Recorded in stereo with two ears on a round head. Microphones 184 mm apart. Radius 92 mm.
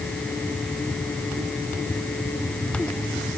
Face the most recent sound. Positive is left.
No sound to turn to.